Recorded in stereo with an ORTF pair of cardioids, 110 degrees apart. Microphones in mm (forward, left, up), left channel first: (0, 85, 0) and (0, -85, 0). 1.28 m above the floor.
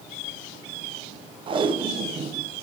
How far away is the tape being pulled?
About 0.5 m.